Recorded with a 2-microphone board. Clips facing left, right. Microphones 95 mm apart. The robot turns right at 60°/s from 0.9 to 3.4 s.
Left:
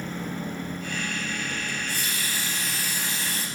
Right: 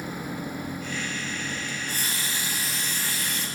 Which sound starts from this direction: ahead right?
A running tap, at 1.7 s.